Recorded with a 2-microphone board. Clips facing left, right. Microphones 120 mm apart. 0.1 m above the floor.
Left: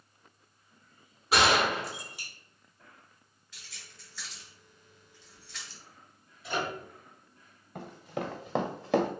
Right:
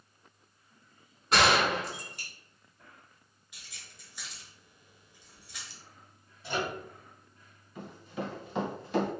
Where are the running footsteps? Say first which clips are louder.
Left 2 dB; 60° left (ahead or behind), 1.0 m; by 9.1 s 70° left (ahead or behind), 0.8 m.